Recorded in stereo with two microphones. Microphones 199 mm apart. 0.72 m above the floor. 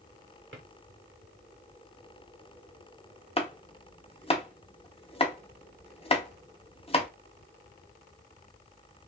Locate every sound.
0.5 s a drawer: 80° right, 1.0 m
3.4 s chopping: 30° left (ahead or behind), 0.7 m